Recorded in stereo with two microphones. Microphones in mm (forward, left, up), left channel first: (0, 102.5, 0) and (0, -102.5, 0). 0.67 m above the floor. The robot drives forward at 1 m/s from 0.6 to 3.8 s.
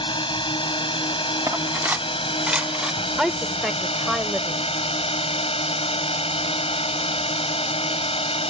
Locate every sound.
0.0 s a drone: 25° left (ahead or behind); by 8.5 s 30° left (ahead or behind)
1.5 s cutlery clinking: 15° right (ahead or behind); by 3.0 s 5° right (ahead or behind)
3.2 s a woman speaking: centre (ahead or behind)